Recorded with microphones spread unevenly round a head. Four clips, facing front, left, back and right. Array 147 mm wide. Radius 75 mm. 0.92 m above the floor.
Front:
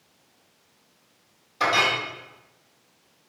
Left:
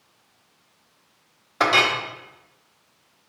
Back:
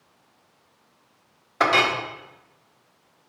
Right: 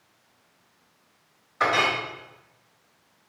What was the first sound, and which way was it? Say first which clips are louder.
A clink: left 3 dB, back 3 dB; 115° left.